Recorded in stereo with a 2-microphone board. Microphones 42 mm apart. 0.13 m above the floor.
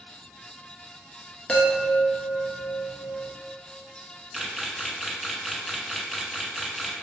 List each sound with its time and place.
1.5 s a chime: 30° left (ahead or behind), 1.0 m
4.3 s a camera shutter: centre (ahead or behind), 0.7 m